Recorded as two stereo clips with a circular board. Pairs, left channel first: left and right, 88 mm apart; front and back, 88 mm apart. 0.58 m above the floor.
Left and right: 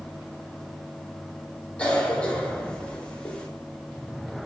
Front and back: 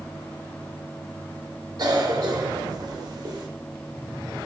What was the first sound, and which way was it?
A cough, 165° left.